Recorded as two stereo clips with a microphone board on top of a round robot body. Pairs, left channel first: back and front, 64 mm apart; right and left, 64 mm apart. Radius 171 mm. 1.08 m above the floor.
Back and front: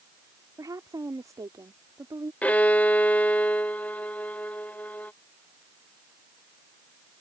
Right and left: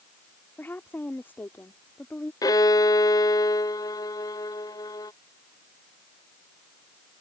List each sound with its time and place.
0.6 s a woman speaking: 30° right
2.4 s a violin: 110° right